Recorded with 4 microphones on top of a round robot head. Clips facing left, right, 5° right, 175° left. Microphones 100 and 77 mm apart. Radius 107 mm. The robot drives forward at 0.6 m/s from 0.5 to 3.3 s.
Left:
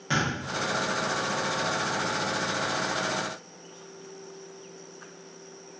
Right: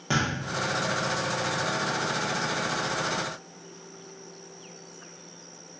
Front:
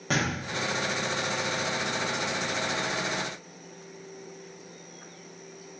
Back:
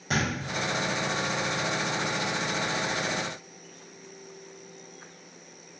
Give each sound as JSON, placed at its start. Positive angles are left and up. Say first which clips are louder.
{"t": 0.1, "sound": "a thud", "louder": "even, even", "azimuth_deg": -40, "distance_m": 0.6}